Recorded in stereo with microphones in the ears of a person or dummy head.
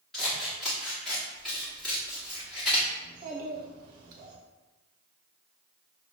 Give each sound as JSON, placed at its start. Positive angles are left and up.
{"t": 0.1, "sound": "scissors", "side_deg": 5, "distance_m": 1.1}
{"t": 3.0, "sound": "a child speaking", "side_deg": -50, "distance_m": 1.0}